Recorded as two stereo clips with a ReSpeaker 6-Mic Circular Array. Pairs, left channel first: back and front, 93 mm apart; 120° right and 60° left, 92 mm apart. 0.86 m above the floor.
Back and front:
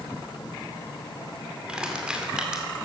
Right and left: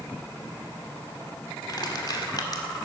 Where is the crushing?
80° right, 2 m.